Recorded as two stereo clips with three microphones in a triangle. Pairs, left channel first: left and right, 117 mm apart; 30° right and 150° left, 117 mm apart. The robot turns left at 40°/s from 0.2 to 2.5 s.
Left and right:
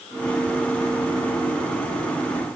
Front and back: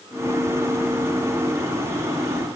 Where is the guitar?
No guitar in this recording.